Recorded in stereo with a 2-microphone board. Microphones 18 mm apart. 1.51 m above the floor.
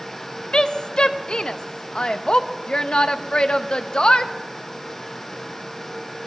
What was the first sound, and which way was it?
A woman speaking, 65° left (ahead or behind).